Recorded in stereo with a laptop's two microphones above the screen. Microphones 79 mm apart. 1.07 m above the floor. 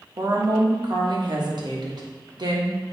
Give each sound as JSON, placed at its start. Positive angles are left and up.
{"t": 0.2, "sound": "a woman speaking", "side_deg": -65, "distance_m": 1.3}